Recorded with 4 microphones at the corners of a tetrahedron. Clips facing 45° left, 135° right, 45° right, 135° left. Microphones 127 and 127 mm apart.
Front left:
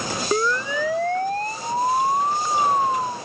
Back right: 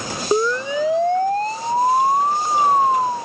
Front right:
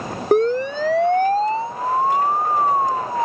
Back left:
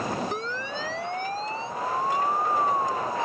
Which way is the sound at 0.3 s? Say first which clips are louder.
Back right 5 dB, front right 15 dB; 65° right.